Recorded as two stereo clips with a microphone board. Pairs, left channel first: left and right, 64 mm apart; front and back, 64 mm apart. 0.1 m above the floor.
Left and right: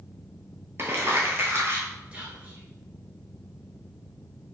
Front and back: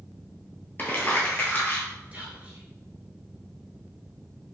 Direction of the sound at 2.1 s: 140° right.